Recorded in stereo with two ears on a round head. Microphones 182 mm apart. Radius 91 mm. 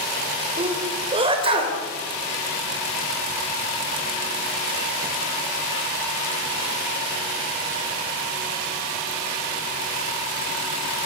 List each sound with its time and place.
0.6 s a sneeze: 25° right (ahead or behind), 2.5 m